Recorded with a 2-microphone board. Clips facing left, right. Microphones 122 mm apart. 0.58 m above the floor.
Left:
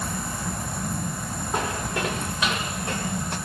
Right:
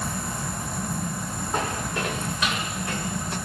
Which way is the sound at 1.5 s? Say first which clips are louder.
Left 1 dB; 15° left (ahead or behind).